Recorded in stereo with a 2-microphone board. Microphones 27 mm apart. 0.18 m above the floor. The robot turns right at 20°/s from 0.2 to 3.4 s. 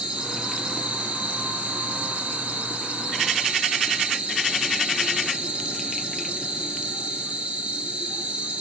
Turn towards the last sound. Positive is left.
turn(degrees=-65)